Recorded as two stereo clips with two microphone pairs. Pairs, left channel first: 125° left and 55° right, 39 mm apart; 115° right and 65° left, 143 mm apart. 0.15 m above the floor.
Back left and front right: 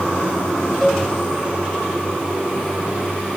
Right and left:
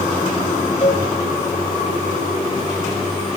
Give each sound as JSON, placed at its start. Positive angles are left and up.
{"t": 0.8, "sound": "a cowbell", "azimuth_deg": -150, "distance_m": 3.0}